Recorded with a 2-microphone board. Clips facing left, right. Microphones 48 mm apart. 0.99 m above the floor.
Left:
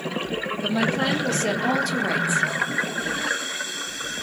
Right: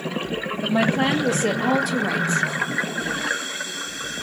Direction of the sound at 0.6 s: 25° right (ahead or behind).